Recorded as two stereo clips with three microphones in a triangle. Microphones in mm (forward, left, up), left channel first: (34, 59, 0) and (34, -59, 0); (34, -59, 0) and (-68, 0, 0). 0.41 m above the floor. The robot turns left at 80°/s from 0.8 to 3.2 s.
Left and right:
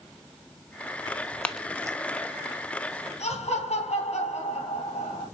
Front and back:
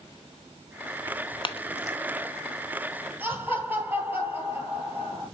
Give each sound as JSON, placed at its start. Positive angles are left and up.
{"t": 1.1, "sound": "tearing paper", "azimuth_deg": 40, "distance_m": 0.6}
{"t": 3.2, "sound": "laughter", "azimuth_deg": 80, "distance_m": 3.5}